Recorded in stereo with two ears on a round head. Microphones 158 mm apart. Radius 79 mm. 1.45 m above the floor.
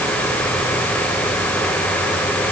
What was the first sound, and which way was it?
Only background noise.